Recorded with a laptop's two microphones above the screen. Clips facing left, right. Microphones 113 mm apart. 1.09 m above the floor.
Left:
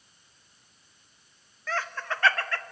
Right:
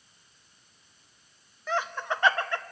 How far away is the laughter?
About 0.9 m.